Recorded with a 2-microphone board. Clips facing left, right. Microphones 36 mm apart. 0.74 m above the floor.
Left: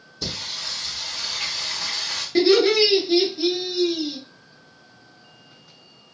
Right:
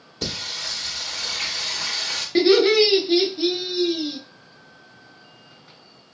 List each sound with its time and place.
0.2 s singing: 65° right (ahead or behind), 0.9 m
2.4 s laughter: 20° right (ahead or behind), 0.8 m